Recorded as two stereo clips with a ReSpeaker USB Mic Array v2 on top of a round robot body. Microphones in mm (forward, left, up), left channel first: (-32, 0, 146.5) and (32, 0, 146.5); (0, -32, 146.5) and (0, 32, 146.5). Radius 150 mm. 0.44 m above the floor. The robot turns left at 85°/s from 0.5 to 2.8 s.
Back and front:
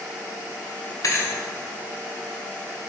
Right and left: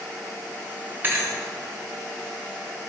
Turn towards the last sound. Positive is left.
turn(degrees=0)